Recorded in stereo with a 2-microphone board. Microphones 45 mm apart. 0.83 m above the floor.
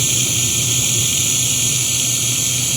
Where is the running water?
5° right (ahead or behind).